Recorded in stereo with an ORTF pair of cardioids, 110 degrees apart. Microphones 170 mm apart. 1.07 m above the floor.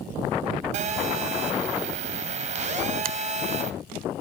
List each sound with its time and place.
0.7 s a phone buzzing: 45° right, 3 m
3.0 s a finger snap: 60° right, 0.7 m